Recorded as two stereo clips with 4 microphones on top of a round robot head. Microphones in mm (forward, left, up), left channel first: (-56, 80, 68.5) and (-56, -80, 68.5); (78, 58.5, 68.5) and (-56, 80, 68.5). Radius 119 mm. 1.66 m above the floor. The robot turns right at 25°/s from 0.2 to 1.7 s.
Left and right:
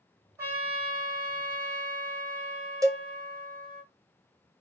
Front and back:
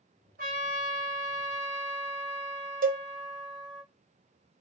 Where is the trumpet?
160° right, 2 m; by 3.8 s 130° right, 2 m.